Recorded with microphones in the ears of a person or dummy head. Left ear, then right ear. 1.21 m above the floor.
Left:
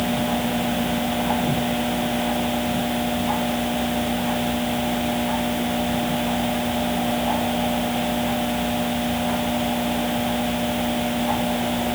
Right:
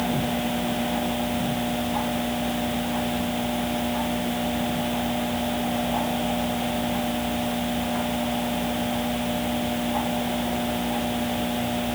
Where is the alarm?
No alarm in this recording.